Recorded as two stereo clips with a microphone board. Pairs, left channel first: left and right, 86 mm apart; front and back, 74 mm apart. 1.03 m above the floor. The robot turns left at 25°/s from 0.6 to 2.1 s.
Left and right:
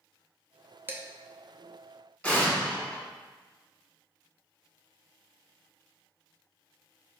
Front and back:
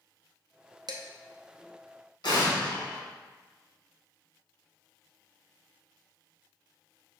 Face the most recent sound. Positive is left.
turn(degrees=15)